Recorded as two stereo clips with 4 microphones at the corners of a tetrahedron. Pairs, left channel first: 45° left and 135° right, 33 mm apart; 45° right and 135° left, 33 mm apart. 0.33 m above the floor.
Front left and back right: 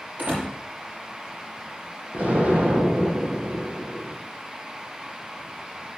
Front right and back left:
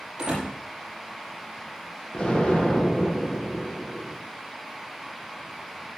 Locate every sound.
0.2 s a door slam: 160° right, 8 m
2.1 s an explosion: 105° right, 4 m